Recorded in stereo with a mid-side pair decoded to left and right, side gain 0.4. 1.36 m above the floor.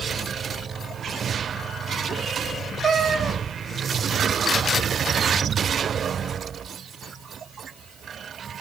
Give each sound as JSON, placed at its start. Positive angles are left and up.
{"t": 2.8, "sound": "a cat meowing", "azimuth_deg": -55, "distance_m": 1.6}